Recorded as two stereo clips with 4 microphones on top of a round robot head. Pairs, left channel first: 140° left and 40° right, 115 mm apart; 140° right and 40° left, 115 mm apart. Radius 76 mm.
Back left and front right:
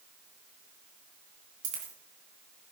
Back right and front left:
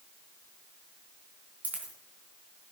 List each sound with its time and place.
1.6 s a dropped coin: 35° right, 3 m